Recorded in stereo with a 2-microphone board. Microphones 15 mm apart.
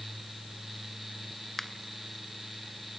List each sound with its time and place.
1.6 s a finger snap: 15° left (ahead or behind), 1.0 m